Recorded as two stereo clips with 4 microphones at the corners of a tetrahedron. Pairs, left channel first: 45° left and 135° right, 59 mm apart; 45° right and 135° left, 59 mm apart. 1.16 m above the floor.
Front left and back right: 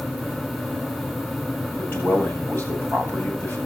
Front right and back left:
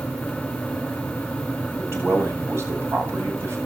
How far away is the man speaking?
About 8 m.